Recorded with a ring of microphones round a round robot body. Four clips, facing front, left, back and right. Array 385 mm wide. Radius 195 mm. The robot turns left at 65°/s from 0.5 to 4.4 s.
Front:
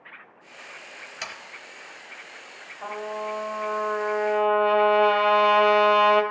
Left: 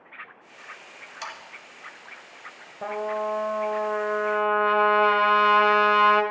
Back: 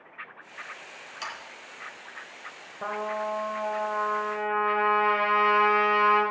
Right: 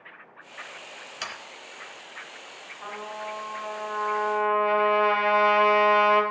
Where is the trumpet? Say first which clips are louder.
Left 8 dB, back 1 dB; 125° left, 2 m; by 6.2 s 20° left, 2 m.